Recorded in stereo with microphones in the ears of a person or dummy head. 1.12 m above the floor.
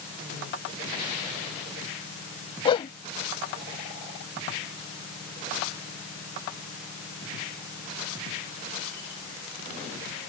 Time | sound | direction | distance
2.6 | a whoosh | 35° left (ahead or behind) | ?